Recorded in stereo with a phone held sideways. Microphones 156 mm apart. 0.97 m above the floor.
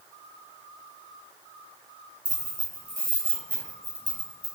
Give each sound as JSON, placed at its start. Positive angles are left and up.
{"t": 2.2, "sound": "keys jangling", "side_deg": -5, "distance_m": 1.9}